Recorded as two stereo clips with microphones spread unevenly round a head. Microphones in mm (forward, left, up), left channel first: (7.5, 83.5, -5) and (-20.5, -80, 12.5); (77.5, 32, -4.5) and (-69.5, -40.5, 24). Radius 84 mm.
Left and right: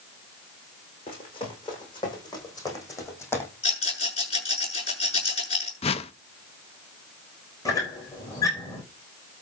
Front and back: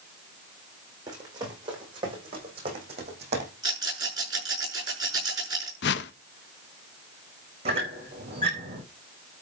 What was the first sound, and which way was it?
Running footsteps, 140° left.